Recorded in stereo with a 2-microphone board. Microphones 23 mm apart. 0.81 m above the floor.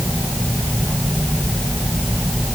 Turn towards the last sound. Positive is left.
No sound to turn to.